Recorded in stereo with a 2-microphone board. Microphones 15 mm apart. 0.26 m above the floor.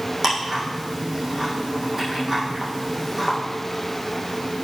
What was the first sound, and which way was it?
Ticking, 20° right (ahead or behind).